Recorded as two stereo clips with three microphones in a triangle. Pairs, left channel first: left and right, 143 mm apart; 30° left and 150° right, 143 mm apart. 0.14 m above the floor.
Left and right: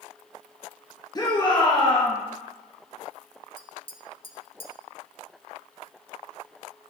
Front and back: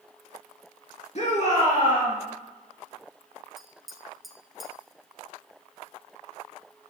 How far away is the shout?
About 2.5 m.